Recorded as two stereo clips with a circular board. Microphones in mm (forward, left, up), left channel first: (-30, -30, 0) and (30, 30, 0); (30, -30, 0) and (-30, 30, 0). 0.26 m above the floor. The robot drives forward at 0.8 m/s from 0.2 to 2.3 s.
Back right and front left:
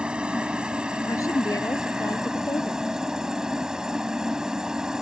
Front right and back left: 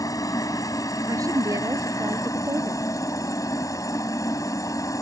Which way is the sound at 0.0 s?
30° right.